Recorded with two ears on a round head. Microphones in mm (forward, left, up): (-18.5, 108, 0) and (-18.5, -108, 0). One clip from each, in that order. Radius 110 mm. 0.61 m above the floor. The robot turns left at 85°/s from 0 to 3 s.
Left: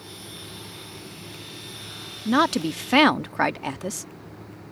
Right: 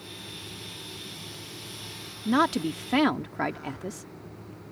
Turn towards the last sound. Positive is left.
turn(degrees=100)